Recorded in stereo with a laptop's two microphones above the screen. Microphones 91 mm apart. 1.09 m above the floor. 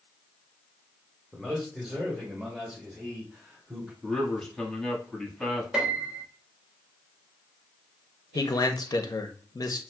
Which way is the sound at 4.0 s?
5° left (ahead or behind).